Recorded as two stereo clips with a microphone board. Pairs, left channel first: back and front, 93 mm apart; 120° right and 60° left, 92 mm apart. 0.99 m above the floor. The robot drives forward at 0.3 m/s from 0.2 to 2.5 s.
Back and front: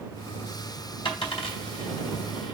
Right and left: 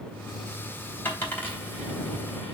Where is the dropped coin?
170° left, 3 m.